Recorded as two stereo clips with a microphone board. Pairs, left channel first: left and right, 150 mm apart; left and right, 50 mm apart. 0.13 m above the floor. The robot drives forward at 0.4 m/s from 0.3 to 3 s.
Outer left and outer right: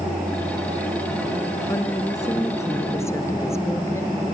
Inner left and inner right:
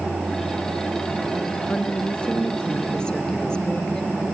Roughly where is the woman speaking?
Left.